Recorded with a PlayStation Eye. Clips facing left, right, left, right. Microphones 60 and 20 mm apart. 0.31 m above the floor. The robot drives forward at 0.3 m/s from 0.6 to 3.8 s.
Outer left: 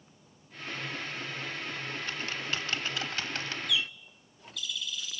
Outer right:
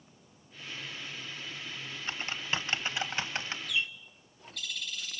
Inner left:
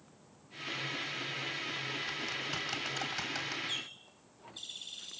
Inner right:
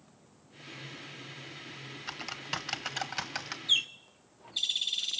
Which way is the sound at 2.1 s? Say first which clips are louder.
Outer right 3 dB, inner left 1 dB; 25° right (ahead or behind).